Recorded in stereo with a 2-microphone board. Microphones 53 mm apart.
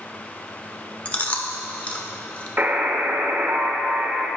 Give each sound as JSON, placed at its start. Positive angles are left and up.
{"t": 1.1, "sound": "chewing", "side_deg": 25, "distance_m": 0.8}
{"t": 2.6, "sound": "a buzzer", "side_deg": -35, "distance_m": 1.0}